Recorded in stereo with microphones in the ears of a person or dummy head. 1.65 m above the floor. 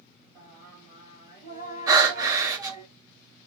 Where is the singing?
15° right (ahead or behind), 1.8 m.